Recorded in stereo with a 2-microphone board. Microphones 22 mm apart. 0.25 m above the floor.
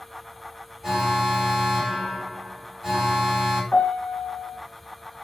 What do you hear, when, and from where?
0.8 s an alarm: 20° right (ahead or behind), 1.9 m
3.7 s a piano: 70° left (ahead or behind), 0.6 m